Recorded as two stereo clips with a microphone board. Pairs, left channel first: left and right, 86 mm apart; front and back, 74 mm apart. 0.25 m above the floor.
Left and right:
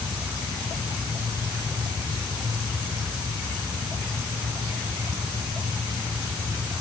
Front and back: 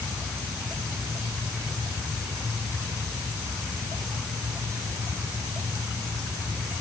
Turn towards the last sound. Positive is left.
No sound to turn to.